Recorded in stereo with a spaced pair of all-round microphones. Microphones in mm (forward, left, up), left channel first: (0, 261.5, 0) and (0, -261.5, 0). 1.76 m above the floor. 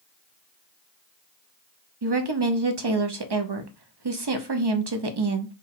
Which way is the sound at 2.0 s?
50° right (ahead or behind).